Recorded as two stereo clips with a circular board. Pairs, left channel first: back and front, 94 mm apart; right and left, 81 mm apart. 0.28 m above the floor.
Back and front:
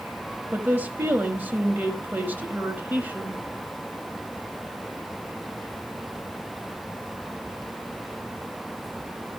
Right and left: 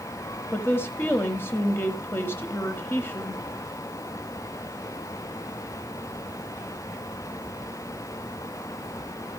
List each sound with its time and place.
0.5 s a woman speaking: 55° right, 1.5 m